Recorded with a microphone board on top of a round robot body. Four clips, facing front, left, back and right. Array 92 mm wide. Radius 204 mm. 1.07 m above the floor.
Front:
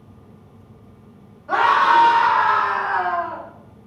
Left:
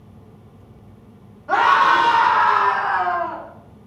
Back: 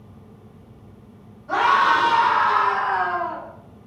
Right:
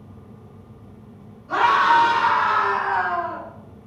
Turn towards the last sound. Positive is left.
turn(degrees=95)